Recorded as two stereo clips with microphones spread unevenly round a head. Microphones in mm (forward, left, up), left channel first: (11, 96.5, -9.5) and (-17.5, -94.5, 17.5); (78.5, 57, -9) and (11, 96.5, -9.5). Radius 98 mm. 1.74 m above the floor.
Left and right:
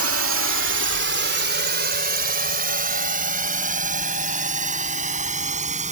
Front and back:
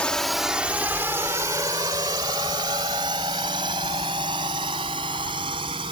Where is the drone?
115° right; by 5.9 s 155° right.